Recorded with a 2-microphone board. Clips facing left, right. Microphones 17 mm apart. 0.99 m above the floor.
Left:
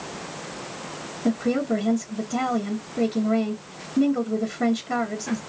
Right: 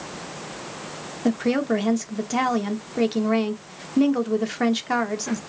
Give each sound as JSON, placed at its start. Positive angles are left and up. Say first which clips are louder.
{"t": 1.2, "sound": "a woman speaking", "louder": "right 1 dB", "side_deg": -50, "distance_m": 1.0}